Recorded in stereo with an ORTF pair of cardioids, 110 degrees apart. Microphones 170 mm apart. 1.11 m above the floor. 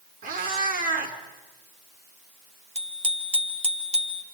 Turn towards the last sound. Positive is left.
turn(degrees=-40)